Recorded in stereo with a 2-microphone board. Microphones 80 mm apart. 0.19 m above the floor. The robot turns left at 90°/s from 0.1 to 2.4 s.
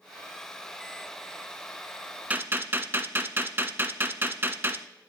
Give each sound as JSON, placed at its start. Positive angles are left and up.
{"t": 2.3, "sound": "a gunshot", "side_deg": -20, "distance_m": 0.6}